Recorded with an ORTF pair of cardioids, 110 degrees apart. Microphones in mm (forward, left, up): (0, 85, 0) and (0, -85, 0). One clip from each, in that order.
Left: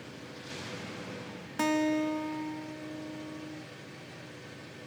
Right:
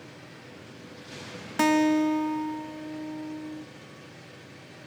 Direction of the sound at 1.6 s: 30° right.